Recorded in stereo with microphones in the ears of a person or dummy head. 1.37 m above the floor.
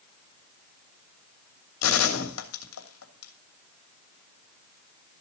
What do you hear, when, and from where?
1.8 s a gunshot: 85° left, 2.5 m